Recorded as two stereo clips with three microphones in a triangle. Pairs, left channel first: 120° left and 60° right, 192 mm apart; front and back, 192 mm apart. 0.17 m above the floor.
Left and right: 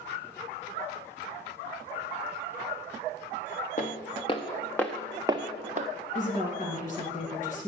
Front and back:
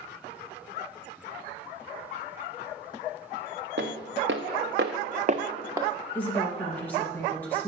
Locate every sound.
3.8 s footsteps: 165° left, 1.4 m; by 5.9 s 100° right, 1.0 m
6.2 s a woman speaking: 80° left, 2.0 m